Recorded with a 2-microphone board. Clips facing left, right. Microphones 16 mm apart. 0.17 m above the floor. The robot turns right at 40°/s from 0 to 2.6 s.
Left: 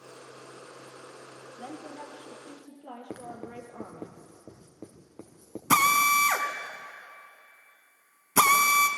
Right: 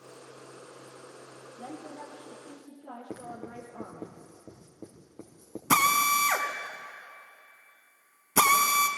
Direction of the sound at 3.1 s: 60° left (ahead or behind).